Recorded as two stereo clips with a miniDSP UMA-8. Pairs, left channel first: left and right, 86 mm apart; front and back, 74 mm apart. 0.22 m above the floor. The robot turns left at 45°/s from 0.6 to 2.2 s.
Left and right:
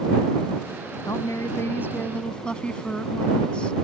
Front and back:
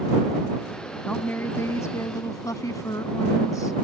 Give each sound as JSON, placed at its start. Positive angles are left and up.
{"t": 1.1, "sound": "a woman speaking", "azimuth_deg": 65}